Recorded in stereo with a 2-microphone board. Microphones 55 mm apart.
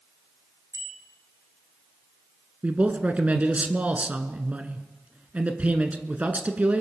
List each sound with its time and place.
0.7 s a bicycle bell: 65° right (ahead or behind), 8 m
2.6 s a man speaking: 25° right (ahead or behind), 1.2 m